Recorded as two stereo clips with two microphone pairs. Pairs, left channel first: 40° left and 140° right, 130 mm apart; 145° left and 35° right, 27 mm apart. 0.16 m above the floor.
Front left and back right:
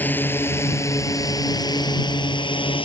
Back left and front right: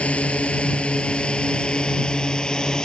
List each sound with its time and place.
0.0 s a drone: 115° left; by 2.9 s 85° left